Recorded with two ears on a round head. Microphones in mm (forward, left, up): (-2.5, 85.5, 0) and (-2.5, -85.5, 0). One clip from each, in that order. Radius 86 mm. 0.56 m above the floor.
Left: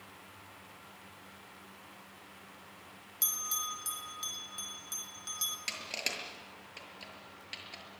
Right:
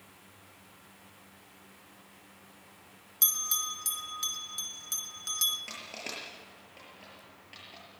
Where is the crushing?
85° left, 7 m.